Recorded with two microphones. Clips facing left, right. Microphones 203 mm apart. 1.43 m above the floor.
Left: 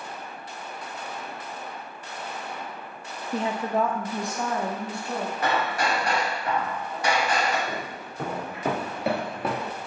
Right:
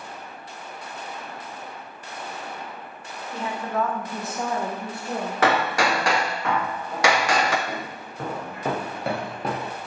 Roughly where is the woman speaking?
Left.